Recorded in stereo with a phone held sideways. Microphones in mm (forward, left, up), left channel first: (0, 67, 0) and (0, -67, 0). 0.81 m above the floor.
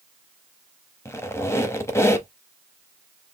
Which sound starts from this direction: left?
A squeak, at 1.1 s.